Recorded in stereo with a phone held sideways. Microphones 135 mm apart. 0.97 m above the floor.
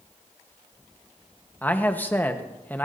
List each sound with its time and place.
1.6 s a man speaking: 15° left (ahead or behind), 1.2 m